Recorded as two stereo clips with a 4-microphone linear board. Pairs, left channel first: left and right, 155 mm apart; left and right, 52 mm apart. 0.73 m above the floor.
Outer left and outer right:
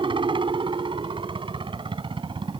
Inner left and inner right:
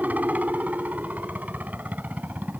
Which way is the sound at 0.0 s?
35° right (ahead or behind).